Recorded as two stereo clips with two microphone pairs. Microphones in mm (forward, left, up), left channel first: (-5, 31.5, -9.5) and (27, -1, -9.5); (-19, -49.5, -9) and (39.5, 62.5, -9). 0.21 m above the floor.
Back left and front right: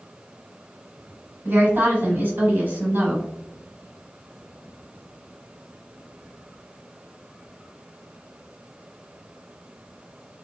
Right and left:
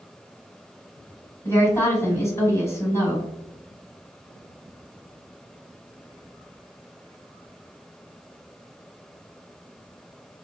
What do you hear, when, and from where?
1.4 s a woman speaking: 55° right, 1.3 m